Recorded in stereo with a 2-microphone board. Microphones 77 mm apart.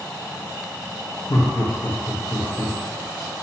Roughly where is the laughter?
Left.